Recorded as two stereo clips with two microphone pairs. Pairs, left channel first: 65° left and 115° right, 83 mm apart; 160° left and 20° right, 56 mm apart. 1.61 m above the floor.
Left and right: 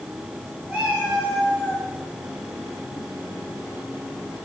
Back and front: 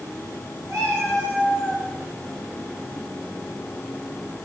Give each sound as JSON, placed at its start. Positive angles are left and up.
{"t": 0.7, "sound": "a cat meowing", "azimuth_deg": -45, "distance_m": 8.5}